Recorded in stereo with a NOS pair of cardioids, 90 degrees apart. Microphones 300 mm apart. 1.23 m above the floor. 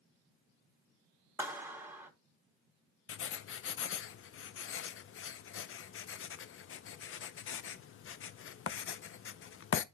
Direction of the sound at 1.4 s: 5° right.